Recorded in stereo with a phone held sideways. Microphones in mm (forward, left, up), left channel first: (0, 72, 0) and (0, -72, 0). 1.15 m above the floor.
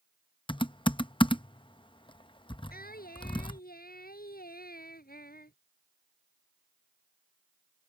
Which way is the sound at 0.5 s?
35° left (ahead or behind).